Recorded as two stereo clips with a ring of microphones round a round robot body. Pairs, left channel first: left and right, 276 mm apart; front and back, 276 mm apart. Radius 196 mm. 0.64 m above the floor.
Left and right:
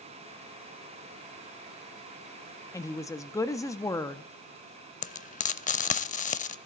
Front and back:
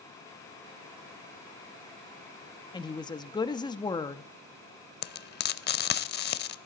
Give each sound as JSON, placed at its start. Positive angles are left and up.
{"t": 2.7, "sound": "a woman speaking", "azimuth_deg": 35, "distance_m": 0.5}
{"t": 5.0, "sound": "frying", "azimuth_deg": 35, "distance_m": 0.5}